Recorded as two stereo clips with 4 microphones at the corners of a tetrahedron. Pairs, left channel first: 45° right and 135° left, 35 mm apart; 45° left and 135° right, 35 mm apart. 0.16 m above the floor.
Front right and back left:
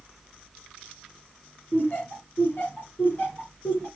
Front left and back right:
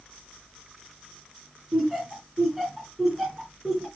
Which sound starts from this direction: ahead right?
Laughter, at 1.7 s.